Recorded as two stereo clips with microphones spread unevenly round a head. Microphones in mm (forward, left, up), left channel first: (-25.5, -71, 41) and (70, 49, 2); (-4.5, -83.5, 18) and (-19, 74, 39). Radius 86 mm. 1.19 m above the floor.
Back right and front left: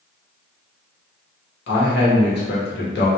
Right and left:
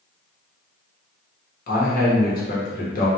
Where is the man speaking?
110° right, 1.0 m.